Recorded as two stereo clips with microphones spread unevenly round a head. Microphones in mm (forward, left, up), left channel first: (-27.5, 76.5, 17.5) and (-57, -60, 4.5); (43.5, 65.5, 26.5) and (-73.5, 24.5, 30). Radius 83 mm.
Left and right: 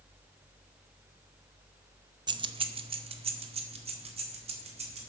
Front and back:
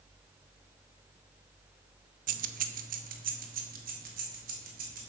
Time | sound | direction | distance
2.3 | keys jangling | 160° right | 0.6 m